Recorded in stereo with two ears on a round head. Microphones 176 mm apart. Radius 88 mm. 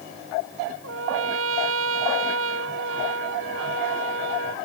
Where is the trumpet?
75° right (ahead or behind).